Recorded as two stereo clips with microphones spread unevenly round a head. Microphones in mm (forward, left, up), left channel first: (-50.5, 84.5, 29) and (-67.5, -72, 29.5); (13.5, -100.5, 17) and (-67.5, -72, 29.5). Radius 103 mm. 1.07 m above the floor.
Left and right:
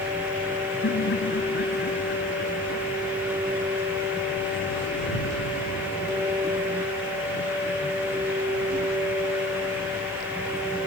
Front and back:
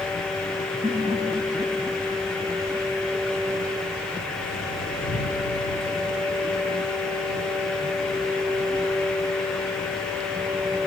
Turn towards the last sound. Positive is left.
turn(degrees=100)